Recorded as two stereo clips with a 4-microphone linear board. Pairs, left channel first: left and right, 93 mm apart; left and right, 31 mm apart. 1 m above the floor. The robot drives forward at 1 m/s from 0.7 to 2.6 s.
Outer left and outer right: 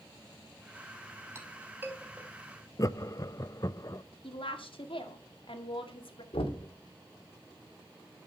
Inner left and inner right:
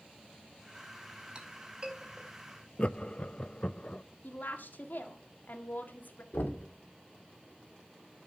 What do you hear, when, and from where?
1.4 s a clink: 30° right (ahead or behind), 1.9 m; by 2.3 s 20° right (ahead or behind), 2.5 m
2.8 s laughter: 40° left (ahead or behind), 0.6 m
4.2 s a woman speaking: 70° left (ahead or behind), 2 m
6.3 s knocking: 85° left, 2 m